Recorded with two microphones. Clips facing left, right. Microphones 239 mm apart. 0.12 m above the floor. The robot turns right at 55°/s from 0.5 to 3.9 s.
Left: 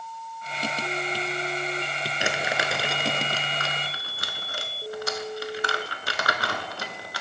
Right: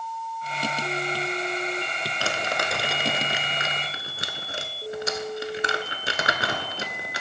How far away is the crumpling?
About 0.6 m.